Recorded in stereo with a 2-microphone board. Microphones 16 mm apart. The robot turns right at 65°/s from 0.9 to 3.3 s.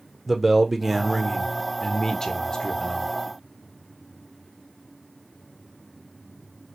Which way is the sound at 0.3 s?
20° right.